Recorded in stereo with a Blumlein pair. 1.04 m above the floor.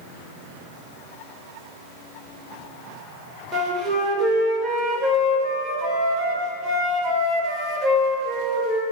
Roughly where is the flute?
Ahead.